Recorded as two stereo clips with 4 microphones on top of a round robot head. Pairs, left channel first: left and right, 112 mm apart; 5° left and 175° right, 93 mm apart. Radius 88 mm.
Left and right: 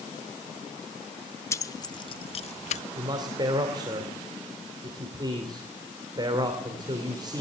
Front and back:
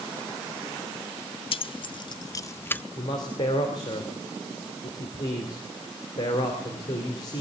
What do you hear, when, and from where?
1.5 s keys jangling: 25° left, 0.9 m; by 2.8 s 80° left, 0.8 m
3.0 s a man speaking: 40° right, 2.5 m